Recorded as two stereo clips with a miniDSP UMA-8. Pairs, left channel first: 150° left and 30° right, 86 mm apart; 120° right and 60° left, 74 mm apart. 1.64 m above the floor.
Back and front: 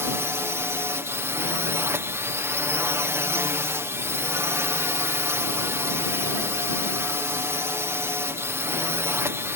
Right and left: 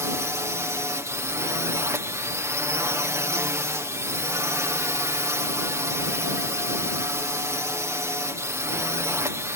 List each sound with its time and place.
0.0 s a drone: 20° left